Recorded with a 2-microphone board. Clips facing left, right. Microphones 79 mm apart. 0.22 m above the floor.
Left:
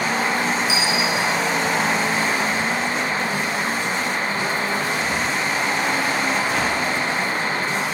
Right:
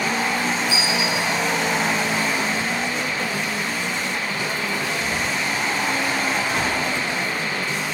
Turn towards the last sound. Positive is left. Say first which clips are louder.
# left 1 dB
turn(degrees=85)